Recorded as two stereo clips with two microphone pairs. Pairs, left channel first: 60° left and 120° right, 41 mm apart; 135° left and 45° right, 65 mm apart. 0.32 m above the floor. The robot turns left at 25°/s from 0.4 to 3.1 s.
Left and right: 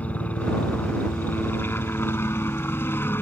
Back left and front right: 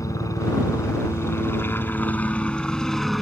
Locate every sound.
0.0 s a helicopter: 115° left; by 3.2 s 45° left